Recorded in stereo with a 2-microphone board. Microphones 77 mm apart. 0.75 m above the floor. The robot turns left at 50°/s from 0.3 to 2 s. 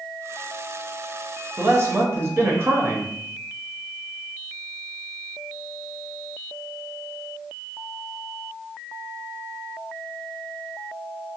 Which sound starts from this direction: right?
A man speaking, at 1.6 s.